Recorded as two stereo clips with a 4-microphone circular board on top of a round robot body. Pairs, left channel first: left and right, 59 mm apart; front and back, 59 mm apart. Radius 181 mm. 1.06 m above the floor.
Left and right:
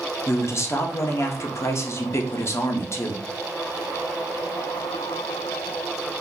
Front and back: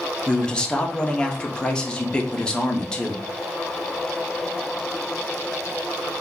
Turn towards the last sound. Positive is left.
turn(degrees=70)